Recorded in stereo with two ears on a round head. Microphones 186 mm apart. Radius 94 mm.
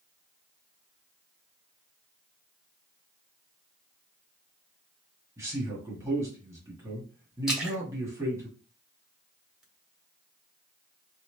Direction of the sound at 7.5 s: 5° right (ahead or behind).